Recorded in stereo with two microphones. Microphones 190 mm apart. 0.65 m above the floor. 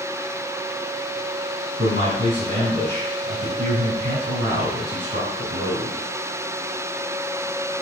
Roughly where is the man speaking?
Right.